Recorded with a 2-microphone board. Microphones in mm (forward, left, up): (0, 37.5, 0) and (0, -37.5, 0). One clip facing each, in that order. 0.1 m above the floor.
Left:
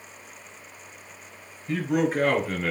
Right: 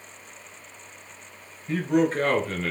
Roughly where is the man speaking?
Centre.